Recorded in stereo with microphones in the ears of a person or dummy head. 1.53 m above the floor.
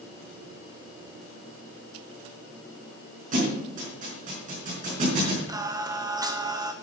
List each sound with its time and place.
3.3 s a thud: 40° right (ahead or behind), 5 m
5.5 s singing: 20° right (ahead or behind), 0.9 m